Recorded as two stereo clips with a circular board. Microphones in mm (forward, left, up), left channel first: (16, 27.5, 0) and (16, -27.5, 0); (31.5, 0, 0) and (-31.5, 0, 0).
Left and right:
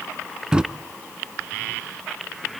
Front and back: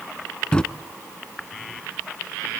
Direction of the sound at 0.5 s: 45° right.